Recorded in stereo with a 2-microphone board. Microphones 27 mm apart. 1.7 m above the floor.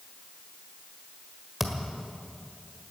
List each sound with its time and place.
1.6 s a thud: 10° right (ahead or behind), 1.5 m